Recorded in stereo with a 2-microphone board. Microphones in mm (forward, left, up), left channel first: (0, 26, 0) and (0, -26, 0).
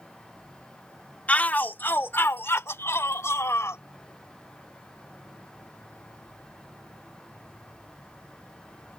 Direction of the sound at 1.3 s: 30° left (ahead or behind).